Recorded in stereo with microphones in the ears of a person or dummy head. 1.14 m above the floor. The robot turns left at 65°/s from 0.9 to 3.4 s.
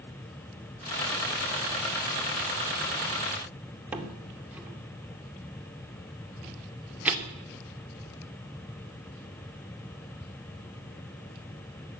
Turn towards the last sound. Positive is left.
turn(degrees=-5)  # may be behind; listen again after turning